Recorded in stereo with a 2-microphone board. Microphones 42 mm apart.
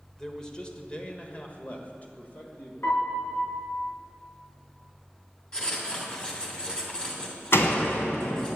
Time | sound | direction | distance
0.2 | a man speaking | 10° left (ahead or behind) | 1.3 m
2.8 | a piano | 75° left (ahead or behind) | 3.5 m
5.5 | writing | 25° left (ahead or behind) | 2.5 m
7.5 | a door slam | 65° left (ahead or behind) | 1.9 m